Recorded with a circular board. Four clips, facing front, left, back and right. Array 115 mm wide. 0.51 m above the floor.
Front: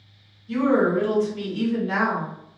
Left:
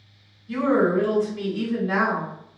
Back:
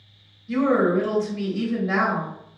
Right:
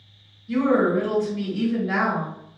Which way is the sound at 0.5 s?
165° right.